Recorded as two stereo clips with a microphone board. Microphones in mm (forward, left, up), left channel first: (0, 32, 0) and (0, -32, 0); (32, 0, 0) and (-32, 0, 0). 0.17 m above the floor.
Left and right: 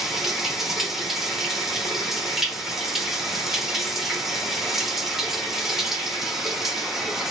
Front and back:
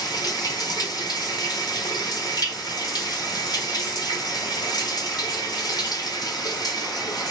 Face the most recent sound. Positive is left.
turn(degrees=-5)